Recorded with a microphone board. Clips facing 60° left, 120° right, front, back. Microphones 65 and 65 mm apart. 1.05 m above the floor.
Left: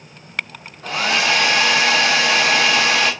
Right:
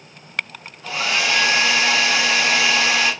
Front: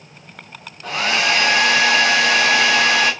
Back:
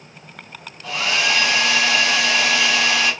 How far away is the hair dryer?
About 0.7 m.